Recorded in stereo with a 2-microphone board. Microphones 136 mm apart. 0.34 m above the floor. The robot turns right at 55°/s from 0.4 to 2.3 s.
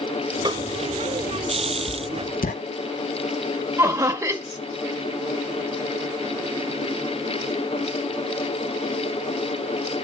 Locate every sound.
0.5 s a snare drum: 30° right (ahead or behind), 1.2 m; by 0.7 s 35° right (ahead or behind), 1.2 m
1.9 s writing: 65° left (ahead or behind), 0.5 m; by 2.5 s 90° left, 0.5 m
3.8 s laughter: 20° right (ahead or behind), 1.0 m